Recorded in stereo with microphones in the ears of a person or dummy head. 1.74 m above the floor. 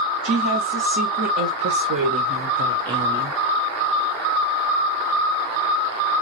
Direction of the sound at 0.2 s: 70° right (ahead or behind).